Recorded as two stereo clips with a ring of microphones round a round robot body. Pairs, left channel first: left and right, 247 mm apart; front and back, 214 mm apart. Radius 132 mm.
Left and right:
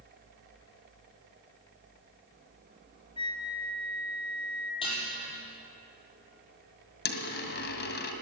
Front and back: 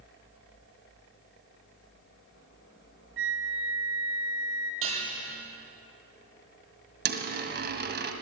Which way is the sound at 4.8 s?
160° left.